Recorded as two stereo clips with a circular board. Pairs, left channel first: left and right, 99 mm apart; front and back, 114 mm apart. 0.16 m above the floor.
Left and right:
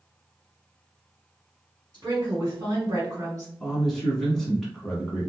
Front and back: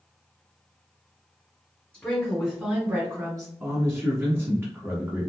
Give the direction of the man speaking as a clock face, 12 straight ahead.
6 o'clock.